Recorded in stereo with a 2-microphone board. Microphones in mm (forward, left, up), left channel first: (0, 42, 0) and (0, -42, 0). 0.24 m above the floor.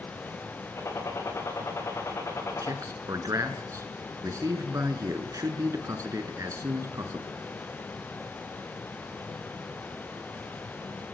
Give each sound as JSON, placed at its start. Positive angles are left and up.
{"t": 0.8, "sound": "a gunshot", "side_deg": 35, "distance_m": 7.5}
{"t": 2.6, "sound": "a man speaking", "side_deg": -40, "distance_m": 3.0}